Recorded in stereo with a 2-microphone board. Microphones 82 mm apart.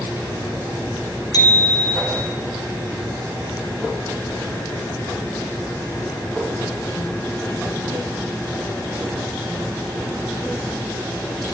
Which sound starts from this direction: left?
A bicycle bell, at 1.3 s.